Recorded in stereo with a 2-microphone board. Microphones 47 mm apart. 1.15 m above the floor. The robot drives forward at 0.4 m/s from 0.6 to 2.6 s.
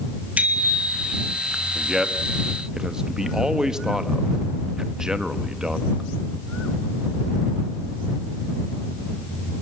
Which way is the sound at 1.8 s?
10° right (ahead or behind).